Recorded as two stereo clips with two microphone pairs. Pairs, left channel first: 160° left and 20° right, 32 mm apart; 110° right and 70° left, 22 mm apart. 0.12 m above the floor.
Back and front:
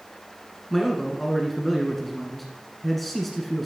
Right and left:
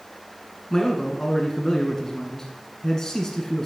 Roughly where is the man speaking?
Behind right.